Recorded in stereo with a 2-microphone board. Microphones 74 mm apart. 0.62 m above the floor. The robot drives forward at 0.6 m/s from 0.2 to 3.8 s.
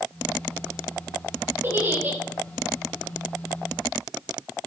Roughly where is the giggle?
Right.